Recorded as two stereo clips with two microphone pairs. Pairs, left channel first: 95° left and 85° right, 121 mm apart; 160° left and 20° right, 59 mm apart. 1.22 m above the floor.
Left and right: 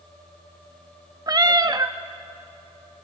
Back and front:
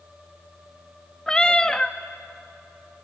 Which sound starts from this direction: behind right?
A cat meowing, at 1.3 s.